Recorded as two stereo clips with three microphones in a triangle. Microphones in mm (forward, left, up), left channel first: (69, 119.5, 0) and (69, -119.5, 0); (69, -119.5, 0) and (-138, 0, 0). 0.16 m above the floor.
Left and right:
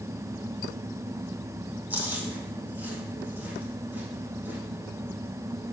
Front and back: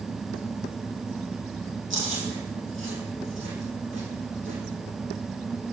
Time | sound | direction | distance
1.9 | chewing | 175° right | 4 m